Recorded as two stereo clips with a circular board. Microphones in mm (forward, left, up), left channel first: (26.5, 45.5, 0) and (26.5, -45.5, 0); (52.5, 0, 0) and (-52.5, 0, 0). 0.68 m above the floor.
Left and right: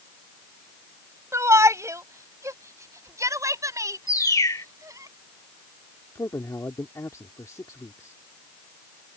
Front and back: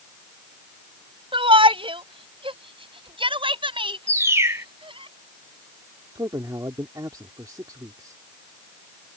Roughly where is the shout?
Behind right.